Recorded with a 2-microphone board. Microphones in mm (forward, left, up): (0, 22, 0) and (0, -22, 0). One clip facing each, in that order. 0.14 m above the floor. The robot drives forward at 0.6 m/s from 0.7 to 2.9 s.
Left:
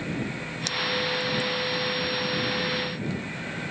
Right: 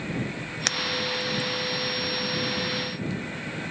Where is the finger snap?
60° right (ahead or behind).